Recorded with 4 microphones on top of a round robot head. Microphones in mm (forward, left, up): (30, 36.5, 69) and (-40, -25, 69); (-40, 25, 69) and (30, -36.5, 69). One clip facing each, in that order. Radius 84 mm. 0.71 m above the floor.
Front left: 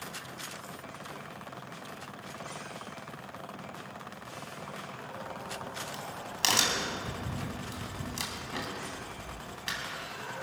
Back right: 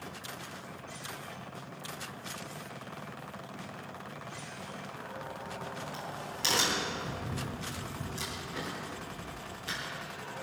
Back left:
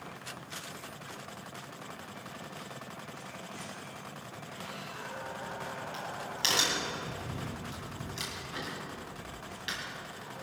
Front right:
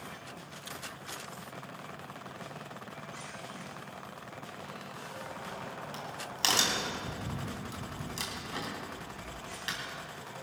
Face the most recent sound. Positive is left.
turn(degrees=10)